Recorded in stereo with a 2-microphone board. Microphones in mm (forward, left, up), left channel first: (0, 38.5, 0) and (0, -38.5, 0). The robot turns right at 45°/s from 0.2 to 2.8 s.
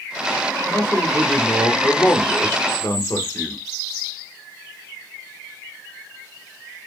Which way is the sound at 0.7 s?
40° right.